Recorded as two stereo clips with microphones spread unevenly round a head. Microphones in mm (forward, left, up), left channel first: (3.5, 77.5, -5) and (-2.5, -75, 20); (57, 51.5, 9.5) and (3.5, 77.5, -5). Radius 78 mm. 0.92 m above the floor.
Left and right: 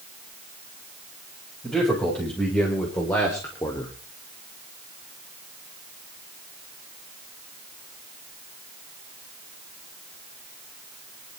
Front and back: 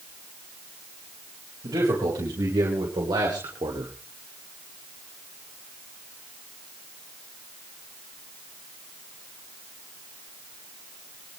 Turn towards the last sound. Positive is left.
turn(degrees=155)